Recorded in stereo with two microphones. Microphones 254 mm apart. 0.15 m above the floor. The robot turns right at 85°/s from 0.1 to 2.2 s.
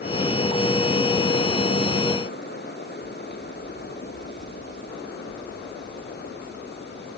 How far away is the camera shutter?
No camera shutter in this recording.